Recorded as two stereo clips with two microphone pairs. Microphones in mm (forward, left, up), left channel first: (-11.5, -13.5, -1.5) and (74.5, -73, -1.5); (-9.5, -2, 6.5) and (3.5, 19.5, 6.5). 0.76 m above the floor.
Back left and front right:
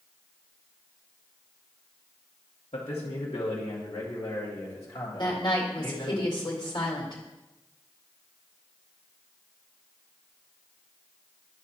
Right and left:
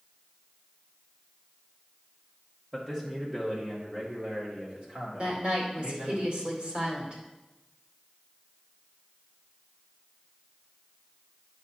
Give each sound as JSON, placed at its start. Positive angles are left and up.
{"t": 2.7, "sound": "a man speaking", "azimuth_deg": 140, "distance_m": 1.3}
{"t": 5.2, "sound": "a woman speaking", "azimuth_deg": 100, "distance_m": 2.5}